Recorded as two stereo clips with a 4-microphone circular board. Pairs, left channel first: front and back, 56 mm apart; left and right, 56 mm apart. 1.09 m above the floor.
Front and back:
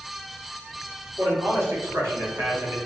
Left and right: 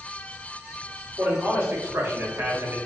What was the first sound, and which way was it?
A man speaking, 150° right.